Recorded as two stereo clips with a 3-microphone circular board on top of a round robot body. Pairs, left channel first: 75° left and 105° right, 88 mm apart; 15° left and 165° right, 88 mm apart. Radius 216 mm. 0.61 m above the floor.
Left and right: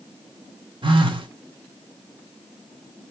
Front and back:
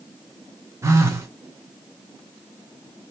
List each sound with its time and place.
0.8 s a phone buzzing: 110° right, 1.5 m